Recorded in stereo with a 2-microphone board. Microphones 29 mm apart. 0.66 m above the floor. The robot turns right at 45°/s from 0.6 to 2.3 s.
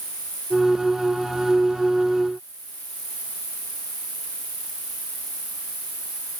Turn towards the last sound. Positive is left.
turn(degrees=-125)